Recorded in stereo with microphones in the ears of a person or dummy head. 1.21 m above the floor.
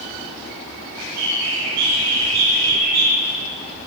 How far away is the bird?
About 2.5 m.